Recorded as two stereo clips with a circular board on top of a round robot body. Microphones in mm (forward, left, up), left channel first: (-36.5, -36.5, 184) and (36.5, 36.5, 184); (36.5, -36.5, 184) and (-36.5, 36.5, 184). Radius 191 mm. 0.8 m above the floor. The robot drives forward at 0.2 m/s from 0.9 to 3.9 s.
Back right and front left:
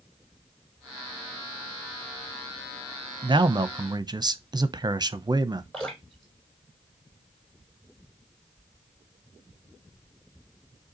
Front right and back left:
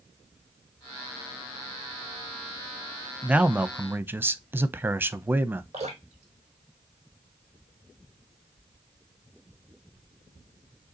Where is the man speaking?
60° left, 0.8 m; by 5.6 s 70° left, 0.8 m.